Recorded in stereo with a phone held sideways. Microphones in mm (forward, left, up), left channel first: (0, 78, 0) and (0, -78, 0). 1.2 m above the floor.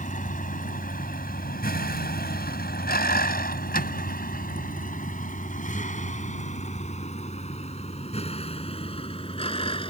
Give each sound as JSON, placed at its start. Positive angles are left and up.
{"t": 0.0, "sound": "a vehicle", "side_deg": 55}